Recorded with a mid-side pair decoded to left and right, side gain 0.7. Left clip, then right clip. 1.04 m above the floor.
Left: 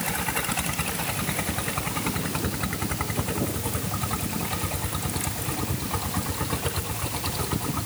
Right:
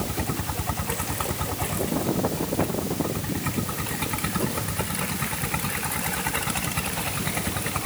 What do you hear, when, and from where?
Only background noise.